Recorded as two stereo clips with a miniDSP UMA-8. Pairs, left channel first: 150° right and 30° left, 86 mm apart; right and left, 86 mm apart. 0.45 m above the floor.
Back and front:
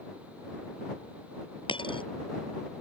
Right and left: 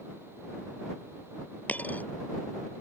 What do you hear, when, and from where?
1.7 s a dropped coin: 160° right